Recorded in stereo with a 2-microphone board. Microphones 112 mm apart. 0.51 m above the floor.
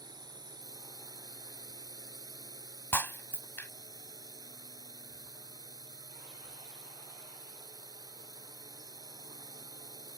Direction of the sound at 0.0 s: 35° right (ahead or behind).